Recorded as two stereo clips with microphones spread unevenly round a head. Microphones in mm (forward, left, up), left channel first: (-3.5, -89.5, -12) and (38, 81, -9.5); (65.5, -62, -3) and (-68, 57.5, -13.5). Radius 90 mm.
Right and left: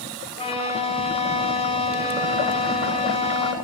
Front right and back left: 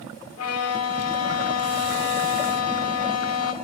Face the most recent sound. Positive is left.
turn(degrees=-45)